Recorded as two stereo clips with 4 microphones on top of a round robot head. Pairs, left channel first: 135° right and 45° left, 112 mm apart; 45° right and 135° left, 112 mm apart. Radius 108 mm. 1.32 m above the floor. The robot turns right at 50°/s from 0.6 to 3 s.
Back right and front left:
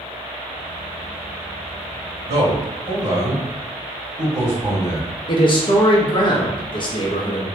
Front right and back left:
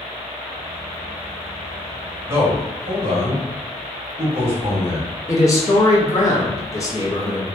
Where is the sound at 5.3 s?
100° right, 0.8 m.